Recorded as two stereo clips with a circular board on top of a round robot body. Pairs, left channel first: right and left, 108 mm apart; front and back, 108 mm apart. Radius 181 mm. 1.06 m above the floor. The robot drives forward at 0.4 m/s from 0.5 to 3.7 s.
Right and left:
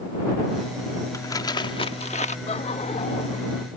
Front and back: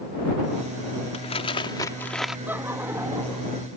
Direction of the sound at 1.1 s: 30° right.